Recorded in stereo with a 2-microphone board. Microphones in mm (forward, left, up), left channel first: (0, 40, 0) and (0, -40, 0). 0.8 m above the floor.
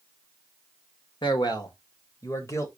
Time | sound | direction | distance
1.2 | a man speaking | 70° left (ahead or behind) | 2.0 m